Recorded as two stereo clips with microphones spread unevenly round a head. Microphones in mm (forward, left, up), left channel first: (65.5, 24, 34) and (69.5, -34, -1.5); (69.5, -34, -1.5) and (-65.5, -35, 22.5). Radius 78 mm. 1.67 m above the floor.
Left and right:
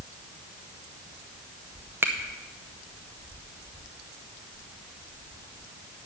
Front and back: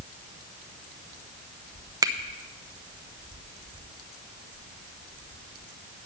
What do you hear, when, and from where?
2.0 s a finger snap: 175° left, 0.7 m